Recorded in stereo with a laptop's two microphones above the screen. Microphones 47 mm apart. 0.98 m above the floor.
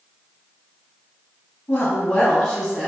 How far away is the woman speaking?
About 1.0 m.